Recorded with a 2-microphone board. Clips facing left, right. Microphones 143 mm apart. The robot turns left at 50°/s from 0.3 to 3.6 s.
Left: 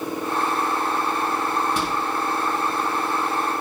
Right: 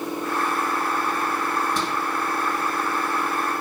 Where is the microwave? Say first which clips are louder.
Left 1 dB; 10° left (ahead or behind), 5.5 m; by 2.0 s 5° right (ahead or behind), 5.5 m.